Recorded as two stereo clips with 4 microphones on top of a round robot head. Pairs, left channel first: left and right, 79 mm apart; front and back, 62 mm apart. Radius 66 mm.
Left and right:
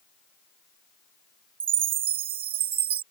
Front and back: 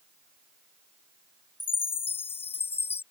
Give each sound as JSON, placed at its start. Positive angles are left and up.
{"t": 1.6, "sound": "a chime", "azimuth_deg": -70}